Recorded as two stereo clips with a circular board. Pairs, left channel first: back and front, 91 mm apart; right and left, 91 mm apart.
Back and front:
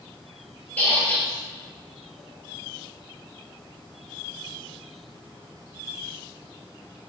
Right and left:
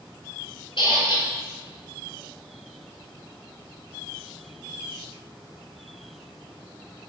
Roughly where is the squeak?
Right.